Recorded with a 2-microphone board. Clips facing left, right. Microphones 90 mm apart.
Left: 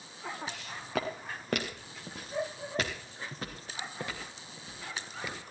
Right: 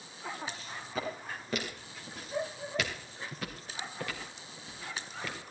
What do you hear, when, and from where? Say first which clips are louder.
0.5 s footsteps: left 1 dB; 75° left (ahead or behind), 3 m; by 5.4 s 15° left (ahead or behind), 5 m